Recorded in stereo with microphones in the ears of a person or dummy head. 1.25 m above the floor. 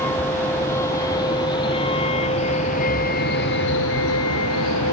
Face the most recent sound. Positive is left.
turn(degrees=75)  # may be behind; listen again after turning